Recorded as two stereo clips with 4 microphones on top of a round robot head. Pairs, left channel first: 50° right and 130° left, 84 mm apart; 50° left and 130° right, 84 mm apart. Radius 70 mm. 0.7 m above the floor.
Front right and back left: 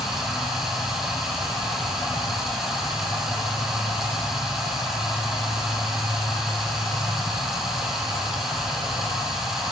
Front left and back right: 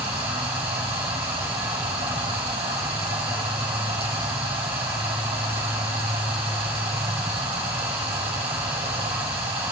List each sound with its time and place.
0.0 s running water: 145° right, 4 m